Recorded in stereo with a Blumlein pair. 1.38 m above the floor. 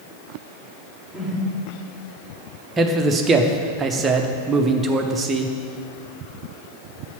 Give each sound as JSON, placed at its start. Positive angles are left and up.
{"t": 1.1, "sound": "a whoosh", "azimuth_deg": 5, "distance_m": 1.7}
{"t": 2.8, "sound": "a man speaking", "azimuth_deg": -20, "distance_m": 0.8}